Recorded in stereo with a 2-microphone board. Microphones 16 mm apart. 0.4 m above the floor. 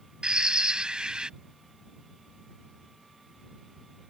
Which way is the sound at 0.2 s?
80° right.